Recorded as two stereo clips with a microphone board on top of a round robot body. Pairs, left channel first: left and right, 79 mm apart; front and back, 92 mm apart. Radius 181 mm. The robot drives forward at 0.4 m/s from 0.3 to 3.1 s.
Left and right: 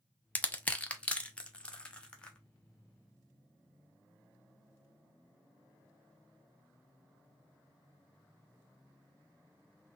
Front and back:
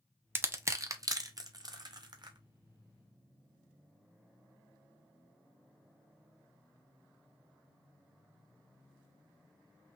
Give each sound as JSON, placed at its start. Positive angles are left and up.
{"t": 0.3, "sound": "crushing", "azimuth_deg": 145, "distance_m": 1.0}